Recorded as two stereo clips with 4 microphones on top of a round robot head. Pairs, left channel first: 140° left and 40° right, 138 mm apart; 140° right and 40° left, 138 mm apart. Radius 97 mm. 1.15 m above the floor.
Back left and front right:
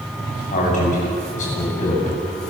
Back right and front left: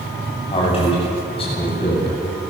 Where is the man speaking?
170° left, 9 m.